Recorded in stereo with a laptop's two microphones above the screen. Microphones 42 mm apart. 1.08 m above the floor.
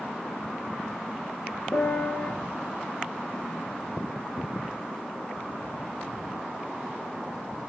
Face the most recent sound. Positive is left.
turn(degrees=80)